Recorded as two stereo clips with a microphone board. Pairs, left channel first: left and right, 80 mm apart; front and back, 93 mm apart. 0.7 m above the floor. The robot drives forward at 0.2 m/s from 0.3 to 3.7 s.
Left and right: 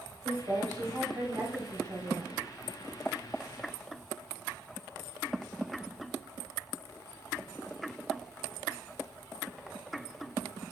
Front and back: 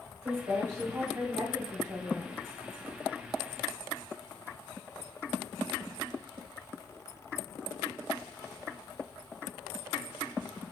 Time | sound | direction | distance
0.2 | a woman speaking | 120° right | 4 m